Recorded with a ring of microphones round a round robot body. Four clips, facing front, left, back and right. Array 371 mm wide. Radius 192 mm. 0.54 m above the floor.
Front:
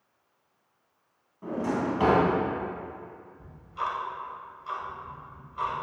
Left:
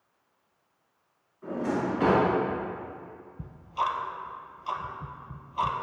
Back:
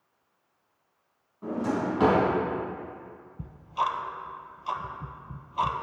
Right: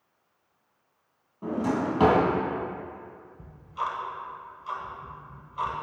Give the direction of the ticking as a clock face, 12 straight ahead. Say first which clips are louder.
Left 3 dB, back 5 dB; 7 o'clock.